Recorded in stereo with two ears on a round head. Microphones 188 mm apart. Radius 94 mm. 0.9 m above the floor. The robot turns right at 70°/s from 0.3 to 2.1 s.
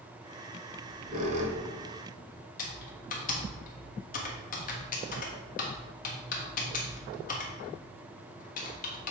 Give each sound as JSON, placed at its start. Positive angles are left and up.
{"t": 0.7, "sound": "a squeak", "side_deg": -40, "distance_m": 1.1}
{"t": 2.6, "sound": "typing on a keyboard", "side_deg": 40, "distance_m": 1.3}